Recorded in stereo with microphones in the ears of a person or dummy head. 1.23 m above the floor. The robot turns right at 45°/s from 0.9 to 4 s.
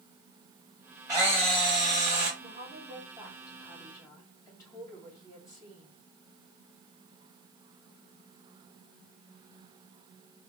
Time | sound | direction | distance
1.1 | a camera shutter | 165° right | 1.6 m
2.4 | a woman speaking | 55° right | 2.5 m